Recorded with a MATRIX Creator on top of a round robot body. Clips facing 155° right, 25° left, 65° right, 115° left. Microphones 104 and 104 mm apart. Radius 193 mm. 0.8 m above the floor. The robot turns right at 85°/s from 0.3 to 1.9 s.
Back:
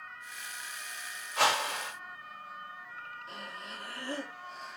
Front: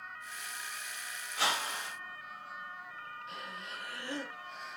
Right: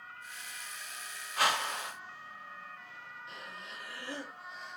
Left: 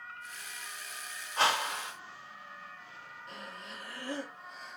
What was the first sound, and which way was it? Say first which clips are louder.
A whoosh: back 6 dB, left 1 dB; 170° left.